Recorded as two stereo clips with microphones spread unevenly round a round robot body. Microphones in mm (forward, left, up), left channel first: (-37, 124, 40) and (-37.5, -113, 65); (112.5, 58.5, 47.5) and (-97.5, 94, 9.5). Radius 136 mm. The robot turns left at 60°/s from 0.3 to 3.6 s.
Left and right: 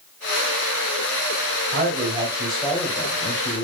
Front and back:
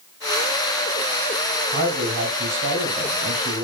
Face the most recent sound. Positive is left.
turn(degrees=115)